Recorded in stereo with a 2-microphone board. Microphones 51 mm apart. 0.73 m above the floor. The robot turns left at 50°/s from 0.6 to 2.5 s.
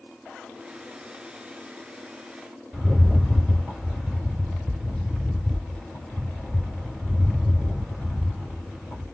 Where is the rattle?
Centre (ahead or behind), 1.9 m.